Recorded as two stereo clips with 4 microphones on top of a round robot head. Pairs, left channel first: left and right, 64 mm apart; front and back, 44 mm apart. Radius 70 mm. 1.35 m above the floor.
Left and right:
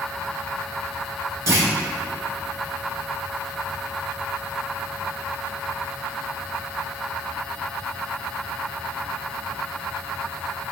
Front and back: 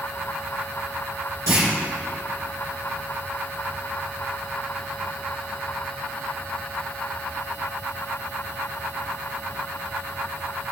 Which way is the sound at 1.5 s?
135° right.